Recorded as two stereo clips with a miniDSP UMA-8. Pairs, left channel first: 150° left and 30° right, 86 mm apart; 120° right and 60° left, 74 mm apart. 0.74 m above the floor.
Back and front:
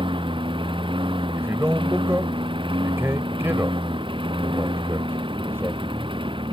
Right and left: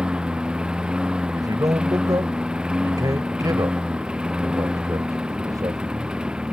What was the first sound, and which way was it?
A lawn mower, 20° right.